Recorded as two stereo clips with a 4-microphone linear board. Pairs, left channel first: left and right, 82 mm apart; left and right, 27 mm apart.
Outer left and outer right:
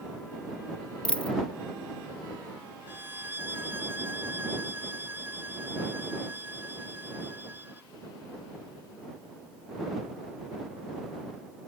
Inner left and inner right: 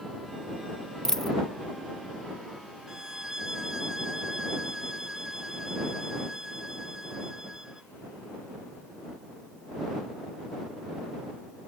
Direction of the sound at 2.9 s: 25° right (ahead or behind).